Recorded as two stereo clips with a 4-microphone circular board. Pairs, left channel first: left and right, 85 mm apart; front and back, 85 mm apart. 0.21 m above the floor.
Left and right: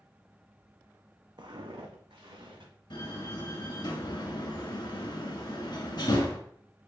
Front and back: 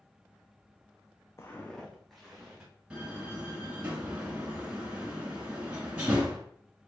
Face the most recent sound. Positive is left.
turn(degrees=105)